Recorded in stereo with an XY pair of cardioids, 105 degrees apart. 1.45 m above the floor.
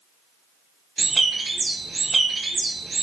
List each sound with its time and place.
1.0 s a bird: 30° right, 0.6 m